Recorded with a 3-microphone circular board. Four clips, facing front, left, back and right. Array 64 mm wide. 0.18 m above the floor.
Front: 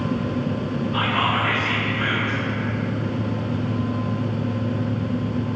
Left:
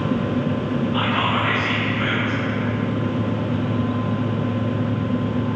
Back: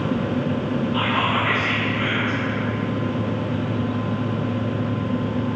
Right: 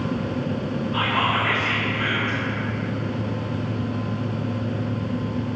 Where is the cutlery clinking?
I don't hear cutlery clinking.